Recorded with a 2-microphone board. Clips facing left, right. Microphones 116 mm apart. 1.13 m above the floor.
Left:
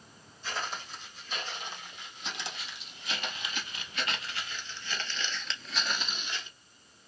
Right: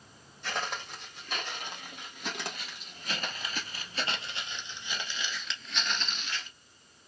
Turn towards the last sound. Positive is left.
turn(degrees=20)  # may be behind; listen again after turning